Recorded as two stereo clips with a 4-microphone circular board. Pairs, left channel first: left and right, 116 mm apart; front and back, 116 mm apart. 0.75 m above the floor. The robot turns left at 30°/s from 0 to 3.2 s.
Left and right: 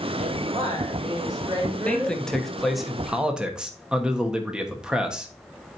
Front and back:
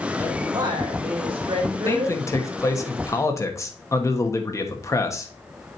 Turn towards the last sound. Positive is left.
turn(degrees=-15)